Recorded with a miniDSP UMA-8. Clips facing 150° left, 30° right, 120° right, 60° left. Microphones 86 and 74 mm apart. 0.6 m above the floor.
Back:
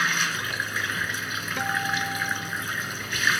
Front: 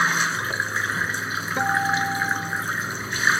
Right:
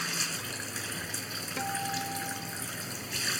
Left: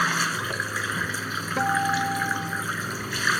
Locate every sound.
0.0 s running water: 30° left
1.6 s a guitar: 25° left